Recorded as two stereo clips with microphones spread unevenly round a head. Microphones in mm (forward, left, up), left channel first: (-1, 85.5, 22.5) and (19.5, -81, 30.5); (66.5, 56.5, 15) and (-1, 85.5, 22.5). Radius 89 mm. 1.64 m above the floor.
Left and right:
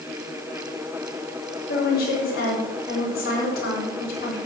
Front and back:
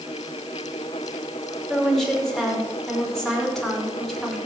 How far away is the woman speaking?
About 6 m.